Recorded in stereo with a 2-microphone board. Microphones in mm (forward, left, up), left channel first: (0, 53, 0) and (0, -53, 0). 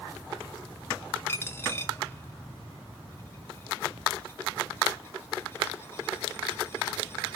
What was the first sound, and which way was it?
A dropped coin, 25° left (ahead or behind).